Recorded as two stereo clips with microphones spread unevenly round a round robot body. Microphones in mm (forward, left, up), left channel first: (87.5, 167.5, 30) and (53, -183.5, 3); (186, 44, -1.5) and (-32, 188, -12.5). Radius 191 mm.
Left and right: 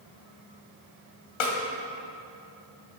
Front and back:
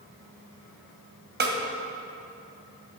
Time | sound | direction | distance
1.4 | a snare drum | 95° left | 2 m